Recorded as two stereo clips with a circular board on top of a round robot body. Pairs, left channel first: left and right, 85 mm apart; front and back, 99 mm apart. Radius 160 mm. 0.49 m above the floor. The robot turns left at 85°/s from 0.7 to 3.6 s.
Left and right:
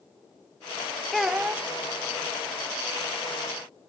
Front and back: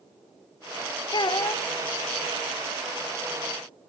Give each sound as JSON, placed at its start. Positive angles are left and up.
{"t": 1.1, "sound": "a child speaking", "azimuth_deg": 5, "distance_m": 0.7}